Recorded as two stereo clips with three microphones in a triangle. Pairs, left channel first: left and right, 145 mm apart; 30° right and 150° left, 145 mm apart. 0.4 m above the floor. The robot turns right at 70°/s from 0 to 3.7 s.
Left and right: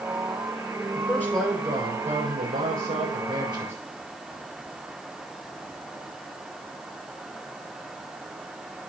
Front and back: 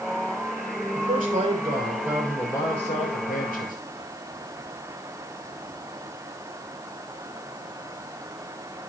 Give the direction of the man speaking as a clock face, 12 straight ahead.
7 o'clock.